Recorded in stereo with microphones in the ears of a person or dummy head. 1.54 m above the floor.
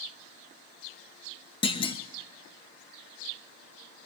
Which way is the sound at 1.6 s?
25° left (ahead or behind).